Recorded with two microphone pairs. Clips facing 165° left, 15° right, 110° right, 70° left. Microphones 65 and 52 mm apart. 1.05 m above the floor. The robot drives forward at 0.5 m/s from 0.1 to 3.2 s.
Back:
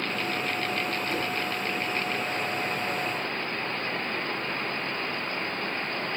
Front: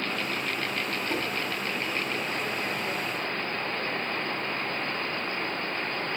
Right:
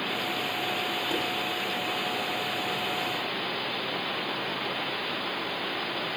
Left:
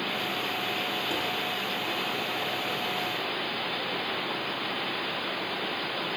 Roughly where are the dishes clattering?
Ahead right.